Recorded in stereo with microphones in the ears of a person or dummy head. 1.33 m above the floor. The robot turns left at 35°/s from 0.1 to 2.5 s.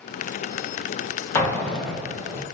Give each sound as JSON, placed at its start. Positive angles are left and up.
{"t": 1.4, "sound": "an explosion", "azimuth_deg": 20, "distance_m": 0.8}